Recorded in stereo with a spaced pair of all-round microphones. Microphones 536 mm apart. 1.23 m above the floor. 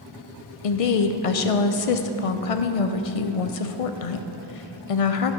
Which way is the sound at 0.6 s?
85° left.